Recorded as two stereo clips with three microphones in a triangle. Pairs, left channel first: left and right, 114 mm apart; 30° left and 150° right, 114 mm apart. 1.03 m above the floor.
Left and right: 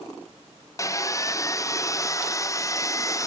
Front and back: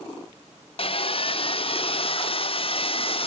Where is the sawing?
35° left, 0.5 m.